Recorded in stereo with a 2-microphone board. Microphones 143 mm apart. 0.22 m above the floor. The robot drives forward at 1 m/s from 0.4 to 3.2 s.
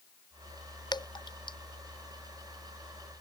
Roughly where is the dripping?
Left.